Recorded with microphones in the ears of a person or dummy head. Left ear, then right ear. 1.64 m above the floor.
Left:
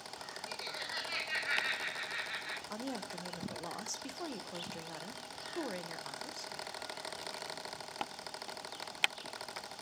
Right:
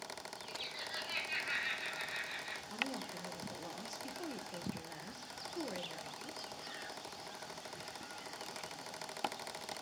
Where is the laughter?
35° left (ahead or behind), 5 m; by 2.6 s 50° left (ahead or behind), 4.5 m.